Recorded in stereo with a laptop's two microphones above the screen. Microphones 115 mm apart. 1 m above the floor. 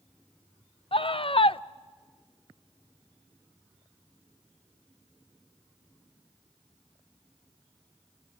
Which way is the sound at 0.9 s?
50° left (ahead or behind).